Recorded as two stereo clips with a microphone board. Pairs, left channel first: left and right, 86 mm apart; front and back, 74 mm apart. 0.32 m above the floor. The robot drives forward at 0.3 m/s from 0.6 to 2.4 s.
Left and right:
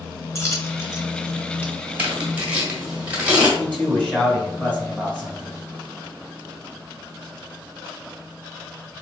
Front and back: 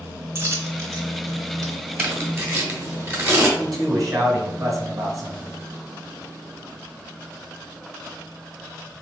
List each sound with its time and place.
0.3 s a dropped coin: 135° left, 0.8 m; by 1.7 s 150° left, 1.1 m
2.0 s tearing paper: 150° right, 1.2 m; by 3.5 s 155° right, 1.3 m
3.6 s a man speaking: 160° left, 1.7 m